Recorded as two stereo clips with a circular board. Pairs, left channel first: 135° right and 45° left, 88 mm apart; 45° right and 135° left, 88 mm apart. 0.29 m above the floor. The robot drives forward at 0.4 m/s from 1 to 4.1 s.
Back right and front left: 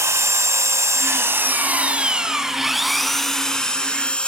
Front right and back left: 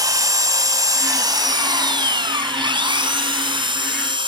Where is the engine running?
100° left, 1.0 m; by 4.3 s 150° left, 1.7 m.